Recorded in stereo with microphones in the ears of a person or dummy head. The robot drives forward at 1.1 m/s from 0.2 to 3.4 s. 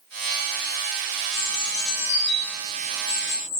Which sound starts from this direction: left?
A bird, at 1.3 s.